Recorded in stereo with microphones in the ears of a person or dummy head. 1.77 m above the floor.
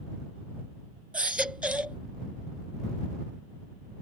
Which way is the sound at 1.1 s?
5° right (ahead or behind).